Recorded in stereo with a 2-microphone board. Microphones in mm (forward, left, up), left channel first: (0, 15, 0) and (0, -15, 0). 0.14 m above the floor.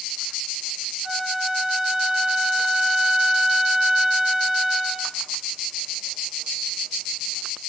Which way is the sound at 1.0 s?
15° right (ahead or behind).